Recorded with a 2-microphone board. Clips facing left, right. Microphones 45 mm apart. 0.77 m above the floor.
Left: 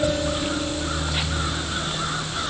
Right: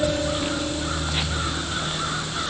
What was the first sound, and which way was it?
Only background noise.